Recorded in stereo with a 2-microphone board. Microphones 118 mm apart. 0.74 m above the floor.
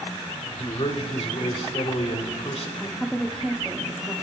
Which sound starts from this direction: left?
A man speaking, at 0.6 s.